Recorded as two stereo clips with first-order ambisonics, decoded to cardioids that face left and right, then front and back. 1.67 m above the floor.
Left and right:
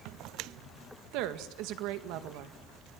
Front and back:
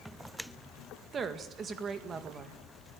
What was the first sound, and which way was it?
A woman speaking, 115° right.